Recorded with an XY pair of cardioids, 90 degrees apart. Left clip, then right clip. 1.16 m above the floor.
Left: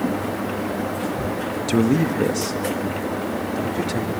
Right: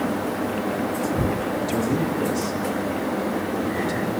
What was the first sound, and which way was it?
A man speaking, 60° left.